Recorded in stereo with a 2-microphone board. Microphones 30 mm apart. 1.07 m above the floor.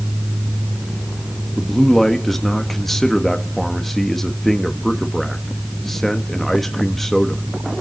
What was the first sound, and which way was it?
A man speaking, 10° left (ahead or behind).